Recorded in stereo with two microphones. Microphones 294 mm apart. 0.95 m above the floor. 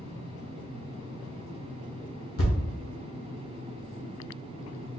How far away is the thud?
About 0.8 m.